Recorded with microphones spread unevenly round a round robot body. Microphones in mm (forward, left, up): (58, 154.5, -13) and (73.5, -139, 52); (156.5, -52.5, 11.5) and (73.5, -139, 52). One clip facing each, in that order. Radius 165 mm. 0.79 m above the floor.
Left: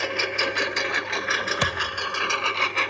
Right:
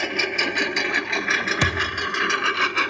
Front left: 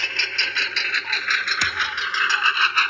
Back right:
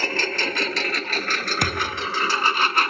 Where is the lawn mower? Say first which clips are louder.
Right 1 dB, back right 7 dB; 95° right.